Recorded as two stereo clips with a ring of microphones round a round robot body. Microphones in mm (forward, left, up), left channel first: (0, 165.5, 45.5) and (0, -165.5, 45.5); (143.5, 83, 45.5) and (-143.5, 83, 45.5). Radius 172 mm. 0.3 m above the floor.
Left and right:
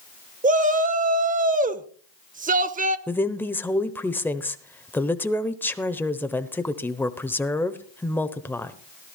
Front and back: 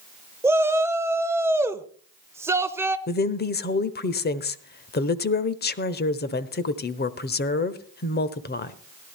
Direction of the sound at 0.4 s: 110° right.